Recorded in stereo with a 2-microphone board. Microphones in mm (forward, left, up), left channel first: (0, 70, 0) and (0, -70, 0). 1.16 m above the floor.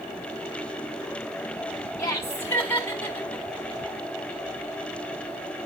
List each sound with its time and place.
2.0 s laughter: 20° left (ahead or behind), 2.5 m; by 3.5 s 15° left (ahead or behind), 4 m